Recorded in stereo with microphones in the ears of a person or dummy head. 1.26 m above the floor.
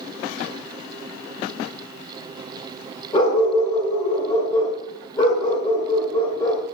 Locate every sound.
3.1 s a dog barking: 20° left (ahead or behind), 2 m